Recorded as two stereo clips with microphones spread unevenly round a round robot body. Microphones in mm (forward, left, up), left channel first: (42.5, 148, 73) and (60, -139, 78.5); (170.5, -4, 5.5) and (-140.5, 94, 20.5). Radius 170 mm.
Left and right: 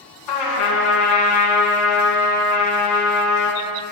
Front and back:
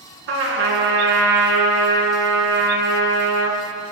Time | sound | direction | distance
0.3 | a trumpet | 110° left | 3 m